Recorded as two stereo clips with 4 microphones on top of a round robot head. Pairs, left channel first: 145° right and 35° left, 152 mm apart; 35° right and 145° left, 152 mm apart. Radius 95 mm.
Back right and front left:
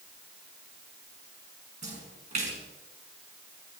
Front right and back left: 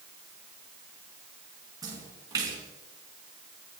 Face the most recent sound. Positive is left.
turn(degrees=80)